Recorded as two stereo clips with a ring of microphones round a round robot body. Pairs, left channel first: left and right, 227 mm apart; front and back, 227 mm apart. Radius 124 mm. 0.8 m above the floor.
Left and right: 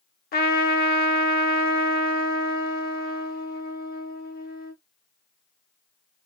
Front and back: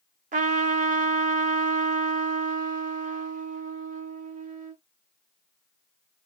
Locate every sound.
0.3 s a trumpet: 130° left, 0.7 m